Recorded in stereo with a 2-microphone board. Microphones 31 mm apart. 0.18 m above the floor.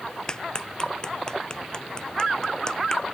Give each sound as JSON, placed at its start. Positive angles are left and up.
{"t": 0.3, "sound": "a clap", "side_deg": 25}